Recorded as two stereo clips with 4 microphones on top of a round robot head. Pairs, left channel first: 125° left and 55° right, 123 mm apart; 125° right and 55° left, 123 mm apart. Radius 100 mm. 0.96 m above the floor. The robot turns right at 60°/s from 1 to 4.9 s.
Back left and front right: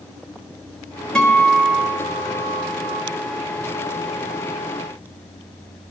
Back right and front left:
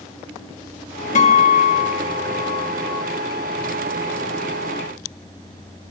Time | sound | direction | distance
1.1 | a guitar | 150° right | 1.1 m